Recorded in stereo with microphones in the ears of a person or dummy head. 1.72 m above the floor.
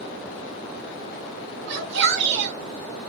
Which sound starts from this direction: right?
A shout, at 1.7 s.